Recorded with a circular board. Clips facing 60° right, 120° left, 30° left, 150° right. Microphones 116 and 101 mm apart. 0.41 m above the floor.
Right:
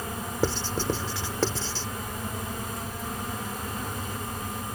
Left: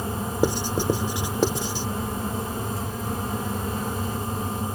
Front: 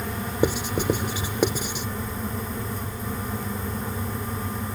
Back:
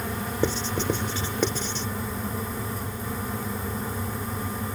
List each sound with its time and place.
0.4 s writing: 80° left